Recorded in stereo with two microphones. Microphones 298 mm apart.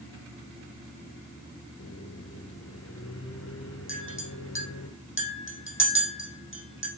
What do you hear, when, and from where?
1.8 s a microwave: 55° left (ahead or behind), 3 m
3.9 s a clink: 40° left (ahead or behind), 5 m